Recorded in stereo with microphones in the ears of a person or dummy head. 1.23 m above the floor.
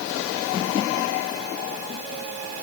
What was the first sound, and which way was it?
Only background noise.